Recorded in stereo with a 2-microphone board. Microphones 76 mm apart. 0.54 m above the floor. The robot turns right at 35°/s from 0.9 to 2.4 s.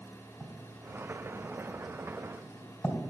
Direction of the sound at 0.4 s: 35° right (ahead or behind).